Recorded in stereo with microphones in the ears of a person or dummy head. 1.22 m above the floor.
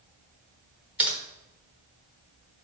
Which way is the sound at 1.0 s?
10° right (ahead or behind).